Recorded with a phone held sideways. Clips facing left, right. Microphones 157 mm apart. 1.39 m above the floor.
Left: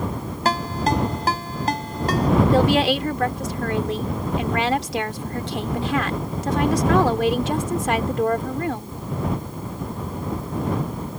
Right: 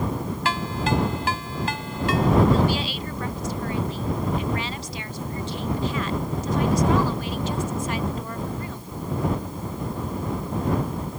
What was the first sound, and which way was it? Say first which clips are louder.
A ringtone: left 4 dB; 40° left (ahead or behind).